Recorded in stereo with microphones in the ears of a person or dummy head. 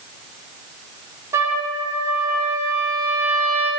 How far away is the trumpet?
About 4 m.